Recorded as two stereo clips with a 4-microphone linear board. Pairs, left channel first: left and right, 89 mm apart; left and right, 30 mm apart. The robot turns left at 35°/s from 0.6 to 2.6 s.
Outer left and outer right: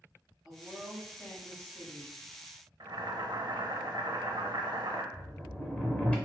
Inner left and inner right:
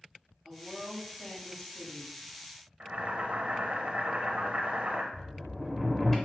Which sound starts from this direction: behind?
A woman speaking, at 0.5 s.